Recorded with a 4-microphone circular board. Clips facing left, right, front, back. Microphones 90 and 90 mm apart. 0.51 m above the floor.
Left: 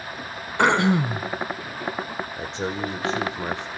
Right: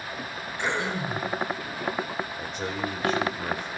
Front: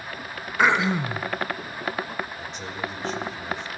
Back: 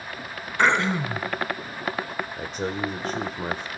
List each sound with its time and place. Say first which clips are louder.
0.6 s throat clearing: left 10 dB, even; 80° left, 1.3 m
2.4 s a man speaking: left 3 dB, back 4 dB; 150° left, 1.7 m